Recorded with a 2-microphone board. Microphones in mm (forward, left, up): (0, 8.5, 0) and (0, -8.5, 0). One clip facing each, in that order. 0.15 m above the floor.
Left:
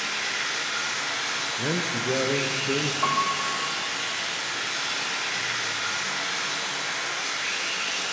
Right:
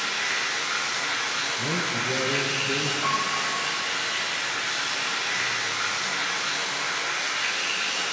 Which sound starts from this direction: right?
Running water, at 0.0 s.